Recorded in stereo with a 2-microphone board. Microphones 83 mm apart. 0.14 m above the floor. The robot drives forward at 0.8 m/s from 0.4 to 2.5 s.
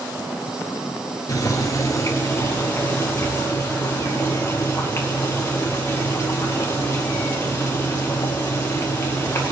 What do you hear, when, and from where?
1.3 s boiling: 45° left (ahead or behind), 1.6 m; by 9.5 s 30° left (ahead or behind), 2 m